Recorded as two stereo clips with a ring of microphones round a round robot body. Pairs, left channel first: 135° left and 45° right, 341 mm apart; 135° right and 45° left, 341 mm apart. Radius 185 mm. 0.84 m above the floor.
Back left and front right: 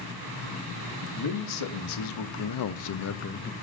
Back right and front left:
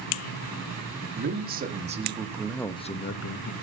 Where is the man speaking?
105° left, 1.7 m; by 3.5 s 160° right, 0.8 m.